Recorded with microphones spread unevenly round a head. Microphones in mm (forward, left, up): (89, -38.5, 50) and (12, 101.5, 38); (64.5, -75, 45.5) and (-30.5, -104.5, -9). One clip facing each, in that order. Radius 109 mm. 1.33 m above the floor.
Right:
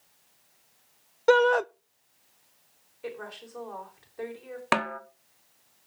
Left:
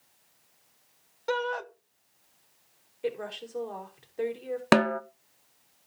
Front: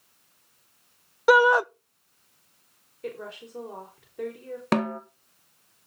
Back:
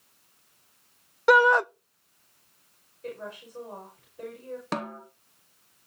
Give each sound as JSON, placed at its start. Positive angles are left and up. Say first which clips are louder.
{"t": 1.3, "sound": "a shout", "louder": "right 11 dB, front 1 dB", "azimuth_deg": -85, "distance_m": 0.5}
{"t": 3.0, "sound": "a woman speaking", "louder": "left 6 dB, front 2 dB", "azimuth_deg": 55, "distance_m": 5.0}
{"t": 4.7, "sound": "a snare drum", "louder": "left 7 dB, front 9 dB", "azimuth_deg": 80, "distance_m": 0.9}